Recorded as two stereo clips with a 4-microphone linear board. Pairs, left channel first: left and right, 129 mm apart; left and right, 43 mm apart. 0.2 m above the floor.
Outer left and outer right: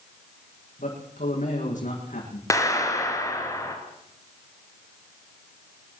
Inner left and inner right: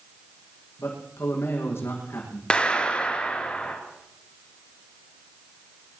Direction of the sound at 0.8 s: 80° left.